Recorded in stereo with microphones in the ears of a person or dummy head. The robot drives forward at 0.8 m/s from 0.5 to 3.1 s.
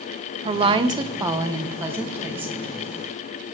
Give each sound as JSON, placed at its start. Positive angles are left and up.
{"t": 0.5, "sound": "a woman speaking", "side_deg": -30, "distance_m": 1.0}